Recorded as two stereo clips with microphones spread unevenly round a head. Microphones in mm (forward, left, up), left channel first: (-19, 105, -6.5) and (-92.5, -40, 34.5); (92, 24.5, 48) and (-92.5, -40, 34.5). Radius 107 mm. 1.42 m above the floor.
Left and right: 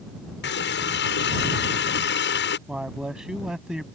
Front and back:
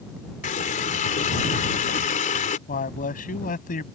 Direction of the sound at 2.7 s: 30° right.